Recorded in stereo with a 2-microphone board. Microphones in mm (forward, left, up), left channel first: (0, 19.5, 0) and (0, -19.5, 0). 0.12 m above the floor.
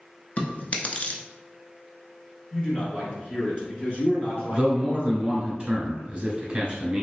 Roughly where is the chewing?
Left.